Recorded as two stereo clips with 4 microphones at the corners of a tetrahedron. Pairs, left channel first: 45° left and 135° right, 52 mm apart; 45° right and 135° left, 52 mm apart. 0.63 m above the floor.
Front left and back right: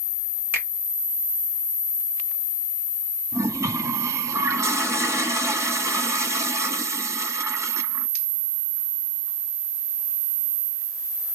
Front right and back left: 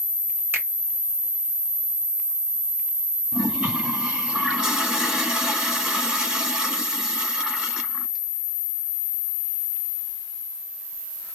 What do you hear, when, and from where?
0.5 s a finger snap: 175° left, 1.9 m
3.3 s a toilet flushing: 155° right, 1.1 m